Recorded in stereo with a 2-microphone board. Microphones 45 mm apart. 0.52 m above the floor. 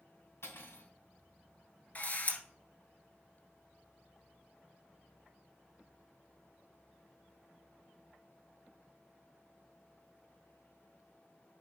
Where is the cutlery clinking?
70° left (ahead or behind), 2 m.